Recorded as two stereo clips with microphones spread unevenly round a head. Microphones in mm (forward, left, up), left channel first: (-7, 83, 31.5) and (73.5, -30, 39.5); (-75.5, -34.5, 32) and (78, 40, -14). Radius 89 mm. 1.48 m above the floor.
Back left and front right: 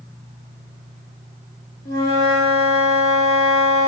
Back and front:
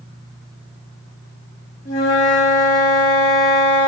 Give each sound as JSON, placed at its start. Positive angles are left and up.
{"t": 1.9, "sound": "a flute", "azimuth_deg": 170, "distance_m": 1.5}